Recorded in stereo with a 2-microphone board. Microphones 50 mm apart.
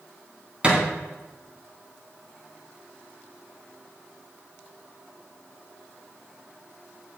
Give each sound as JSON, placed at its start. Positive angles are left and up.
{"t": 0.6, "sound": "a thud", "side_deg": -25, "distance_m": 3.0}